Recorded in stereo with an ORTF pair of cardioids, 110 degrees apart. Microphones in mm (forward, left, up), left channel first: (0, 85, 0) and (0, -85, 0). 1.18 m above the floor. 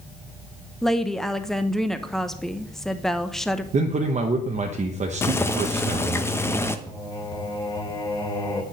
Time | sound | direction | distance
0.8 | a woman speaking | straight ahead | 0.8 m
3.7 | a man speaking | 45° right | 0.9 m
5.2 | boiling | 15° left | 0.8 m
6.9 | singing | 25° left | 2.5 m